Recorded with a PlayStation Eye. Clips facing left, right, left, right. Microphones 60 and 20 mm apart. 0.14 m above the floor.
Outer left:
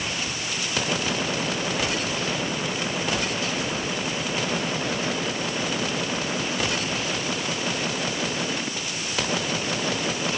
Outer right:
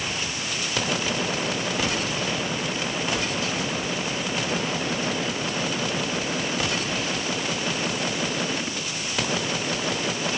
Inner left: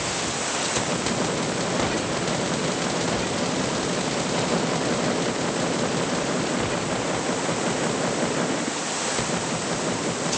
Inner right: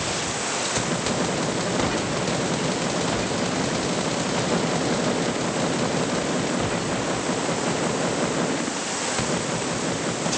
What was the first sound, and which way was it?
Only background noise.